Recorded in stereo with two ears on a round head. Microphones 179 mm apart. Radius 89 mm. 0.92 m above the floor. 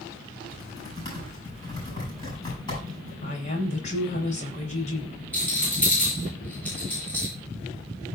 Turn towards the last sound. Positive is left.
turn(degrees=10)  # may be behind; listen again after turning